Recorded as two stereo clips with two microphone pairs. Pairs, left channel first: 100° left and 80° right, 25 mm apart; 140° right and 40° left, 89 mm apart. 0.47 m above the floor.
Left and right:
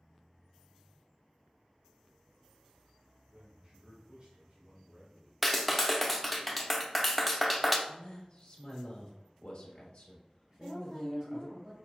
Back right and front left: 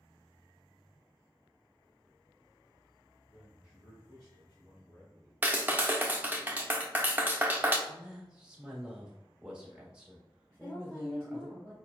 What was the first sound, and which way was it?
A man speaking, 100° right.